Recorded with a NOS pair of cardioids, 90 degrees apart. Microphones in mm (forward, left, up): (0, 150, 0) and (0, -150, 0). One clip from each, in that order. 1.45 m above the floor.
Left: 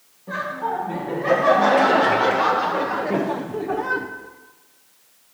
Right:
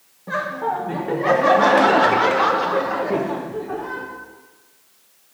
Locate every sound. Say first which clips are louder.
0.3 s laughter: right 2 dB; 35° right, 2 m; by 4.1 s 40° left, 0.7 m